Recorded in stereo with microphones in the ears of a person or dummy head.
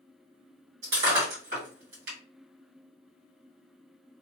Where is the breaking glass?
50° right (ahead or behind), 1.8 m.